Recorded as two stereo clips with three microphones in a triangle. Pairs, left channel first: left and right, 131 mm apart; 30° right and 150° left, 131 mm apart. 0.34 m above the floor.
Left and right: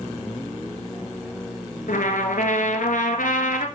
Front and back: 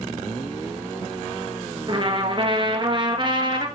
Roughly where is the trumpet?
Left.